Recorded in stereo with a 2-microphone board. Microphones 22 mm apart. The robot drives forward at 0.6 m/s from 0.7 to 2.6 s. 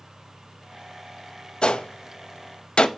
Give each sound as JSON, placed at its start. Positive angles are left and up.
{"t": 1.6, "sound": "a gunshot", "side_deg": 50, "distance_m": 0.6}